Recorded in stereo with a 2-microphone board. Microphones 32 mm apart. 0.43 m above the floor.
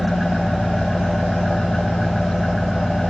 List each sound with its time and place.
0.0 s an engine running: 10° left (ahead or behind), 1.7 m